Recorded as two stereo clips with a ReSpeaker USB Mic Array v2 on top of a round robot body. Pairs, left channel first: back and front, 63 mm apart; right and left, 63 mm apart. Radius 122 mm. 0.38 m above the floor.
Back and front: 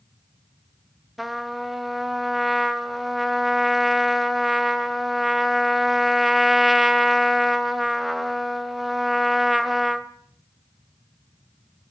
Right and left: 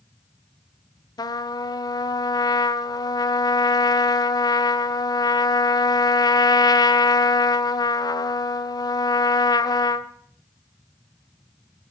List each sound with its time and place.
1.2 s a trumpet: 90° right, 1.2 m